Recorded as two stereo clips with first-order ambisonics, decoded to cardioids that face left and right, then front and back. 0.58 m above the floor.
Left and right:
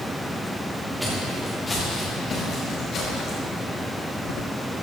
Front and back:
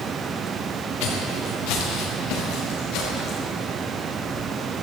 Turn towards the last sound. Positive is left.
turn(degrees=35)